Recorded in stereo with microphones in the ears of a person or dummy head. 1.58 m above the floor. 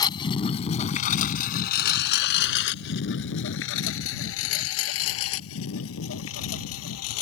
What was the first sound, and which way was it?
A lawn mower, 20° left (ahead or behind).